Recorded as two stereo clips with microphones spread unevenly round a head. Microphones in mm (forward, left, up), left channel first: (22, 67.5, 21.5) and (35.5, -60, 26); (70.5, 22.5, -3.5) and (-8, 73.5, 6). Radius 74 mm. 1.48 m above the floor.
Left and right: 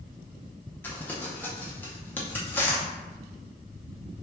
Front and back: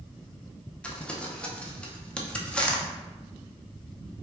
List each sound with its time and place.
0.8 s crumpling: 40° left, 0.5 m